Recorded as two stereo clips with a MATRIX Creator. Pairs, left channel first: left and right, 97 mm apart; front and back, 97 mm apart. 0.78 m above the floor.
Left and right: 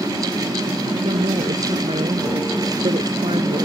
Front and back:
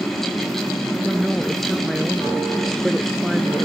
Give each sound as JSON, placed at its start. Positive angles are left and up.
{"t": 1.0, "sound": "a woman speaking", "azimuth_deg": -90}